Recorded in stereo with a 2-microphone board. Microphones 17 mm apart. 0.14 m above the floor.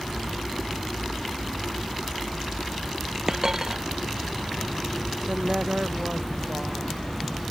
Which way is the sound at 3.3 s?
30° right (ahead or behind).